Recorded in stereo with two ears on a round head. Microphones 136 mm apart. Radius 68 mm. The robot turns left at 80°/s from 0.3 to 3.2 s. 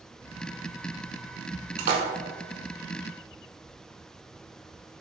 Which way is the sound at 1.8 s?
55° right (ahead or behind).